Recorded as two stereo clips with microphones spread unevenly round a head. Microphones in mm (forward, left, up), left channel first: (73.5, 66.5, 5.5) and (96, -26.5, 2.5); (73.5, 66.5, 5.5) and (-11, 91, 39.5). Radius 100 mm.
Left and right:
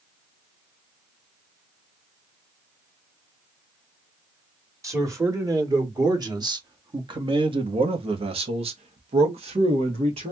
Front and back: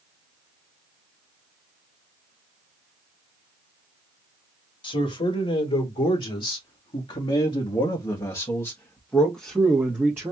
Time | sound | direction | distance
4.8 | a man speaking | 20° right | 2.5 m